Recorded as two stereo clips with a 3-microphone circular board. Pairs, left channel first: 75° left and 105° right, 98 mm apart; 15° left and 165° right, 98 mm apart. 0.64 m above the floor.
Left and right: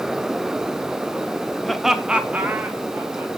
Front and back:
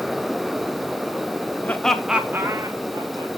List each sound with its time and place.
1.6 s laughter: 10° right, 0.7 m; by 3.3 s 165° right, 1.0 m